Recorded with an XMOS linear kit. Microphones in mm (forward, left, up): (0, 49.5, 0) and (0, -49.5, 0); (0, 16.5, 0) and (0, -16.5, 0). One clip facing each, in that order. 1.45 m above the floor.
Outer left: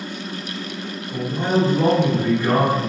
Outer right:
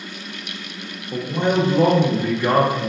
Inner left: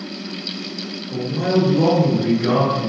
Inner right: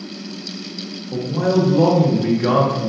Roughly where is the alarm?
No alarm in this recording.